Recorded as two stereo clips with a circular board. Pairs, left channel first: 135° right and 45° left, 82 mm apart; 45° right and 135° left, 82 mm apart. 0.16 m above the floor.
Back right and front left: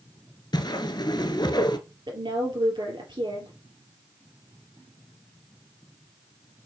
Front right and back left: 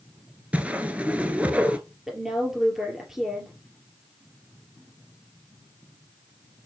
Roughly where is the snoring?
No snoring in this recording.